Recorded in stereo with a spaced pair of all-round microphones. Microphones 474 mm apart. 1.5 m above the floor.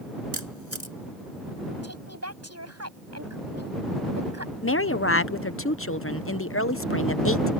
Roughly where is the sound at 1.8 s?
Right.